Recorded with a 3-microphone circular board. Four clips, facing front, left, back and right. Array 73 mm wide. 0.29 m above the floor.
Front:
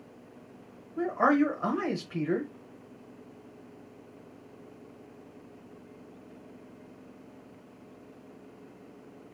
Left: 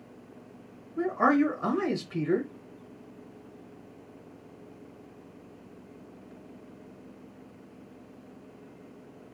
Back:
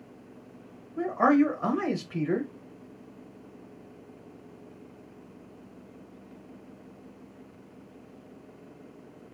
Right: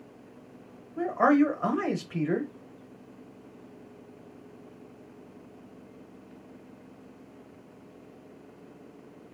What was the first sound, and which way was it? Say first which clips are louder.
A man speaking: right 2 dB, back 2 dB; 95° right.